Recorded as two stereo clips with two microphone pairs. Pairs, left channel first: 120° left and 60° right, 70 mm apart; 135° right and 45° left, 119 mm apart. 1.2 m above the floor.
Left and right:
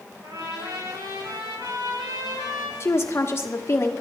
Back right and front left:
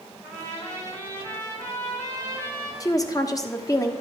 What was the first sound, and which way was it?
A trumpet, 60° right.